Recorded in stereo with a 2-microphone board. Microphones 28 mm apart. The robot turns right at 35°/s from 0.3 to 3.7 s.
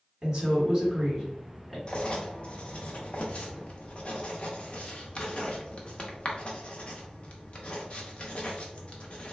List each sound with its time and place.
0.2 s a woman speaking: 45° right, 1.6 m; by 1.8 s 10° left, 1.6 m
1.9 s writing: 35° left (ahead or behind), 0.7 m; by 9.3 s 40° left (ahead or behind), 0.7 m